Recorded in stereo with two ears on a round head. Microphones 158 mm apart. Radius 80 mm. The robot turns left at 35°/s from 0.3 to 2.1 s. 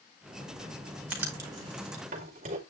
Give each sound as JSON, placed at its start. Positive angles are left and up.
{"t": 1.1, "sound": "writing", "side_deg": -5, "distance_m": 3.5}